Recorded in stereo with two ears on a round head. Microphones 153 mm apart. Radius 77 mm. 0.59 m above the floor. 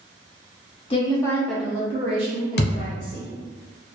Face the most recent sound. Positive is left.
turn(degrees=65)  # may be behind; listen again after turning